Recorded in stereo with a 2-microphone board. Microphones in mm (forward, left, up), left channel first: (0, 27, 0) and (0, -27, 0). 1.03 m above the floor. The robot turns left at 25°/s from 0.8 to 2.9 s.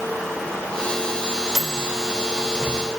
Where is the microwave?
10° left (ahead or behind), 2.5 m; by 2.9 s 25° right (ahead or behind), 2.5 m.